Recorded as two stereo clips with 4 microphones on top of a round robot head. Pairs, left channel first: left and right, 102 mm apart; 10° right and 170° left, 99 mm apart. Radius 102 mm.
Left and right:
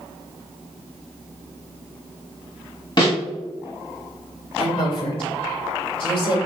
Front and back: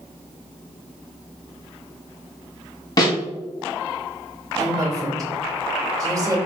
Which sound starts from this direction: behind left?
A woman speaking, at 4.6 s.